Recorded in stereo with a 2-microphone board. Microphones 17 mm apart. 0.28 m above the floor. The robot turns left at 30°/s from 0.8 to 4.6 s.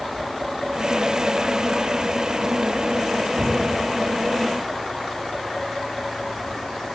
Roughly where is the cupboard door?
Centre.